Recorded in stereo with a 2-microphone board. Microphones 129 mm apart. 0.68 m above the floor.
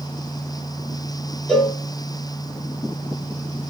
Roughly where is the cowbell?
Centre.